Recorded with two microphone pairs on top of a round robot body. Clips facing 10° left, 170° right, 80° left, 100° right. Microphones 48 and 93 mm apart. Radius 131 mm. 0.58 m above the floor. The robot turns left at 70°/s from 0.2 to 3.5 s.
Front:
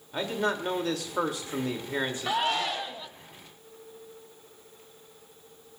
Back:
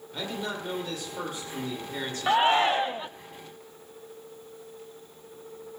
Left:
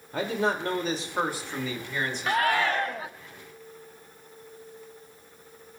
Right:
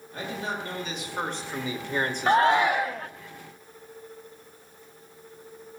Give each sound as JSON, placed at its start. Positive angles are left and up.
{"t": 0.1, "sound": "a man speaking", "azimuth_deg": 75, "distance_m": 2.5}
{"t": 2.3, "sound": "a shout", "azimuth_deg": -130, "distance_m": 0.7}